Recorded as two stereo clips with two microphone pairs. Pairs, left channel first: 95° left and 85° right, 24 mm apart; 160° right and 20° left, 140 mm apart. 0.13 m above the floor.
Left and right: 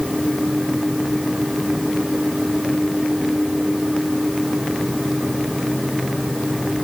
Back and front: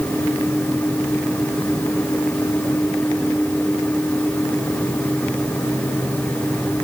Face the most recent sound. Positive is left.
No sound to turn to.